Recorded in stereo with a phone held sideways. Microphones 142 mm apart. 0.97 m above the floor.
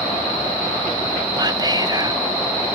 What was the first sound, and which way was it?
Whispering, 30° right (ahead or behind).